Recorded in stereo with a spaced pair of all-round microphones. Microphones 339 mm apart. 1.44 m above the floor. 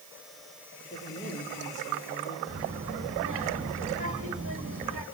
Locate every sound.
0.9 s a woman speaking: 20° left (ahead or behind), 5.5 m
2.5 s a child speaking: 40° right (ahead or behind), 1.7 m